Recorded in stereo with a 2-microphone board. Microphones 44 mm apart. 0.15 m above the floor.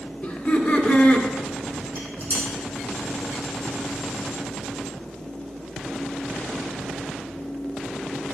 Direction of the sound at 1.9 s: 45° right (ahead or behind).